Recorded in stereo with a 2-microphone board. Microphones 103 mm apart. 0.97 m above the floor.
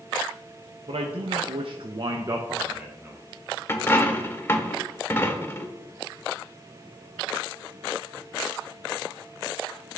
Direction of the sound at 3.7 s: 25° left (ahead or behind).